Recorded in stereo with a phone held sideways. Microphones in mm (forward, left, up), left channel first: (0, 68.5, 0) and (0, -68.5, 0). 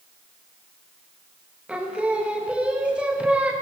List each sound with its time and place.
1.7 s singing: 10° right (ahead or behind), 0.8 m